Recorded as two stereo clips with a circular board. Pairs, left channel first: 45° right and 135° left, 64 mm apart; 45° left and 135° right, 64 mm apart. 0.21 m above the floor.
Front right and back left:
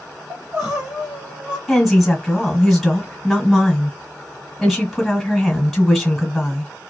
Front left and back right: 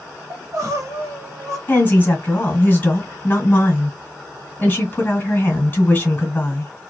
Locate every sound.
0.3 s crying: 150° right, 1.3 m
1.7 s a woman speaking: 40° left, 1.5 m